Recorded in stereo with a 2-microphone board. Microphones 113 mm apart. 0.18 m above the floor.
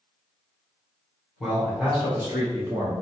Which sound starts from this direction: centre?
A man speaking, at 1.4 s.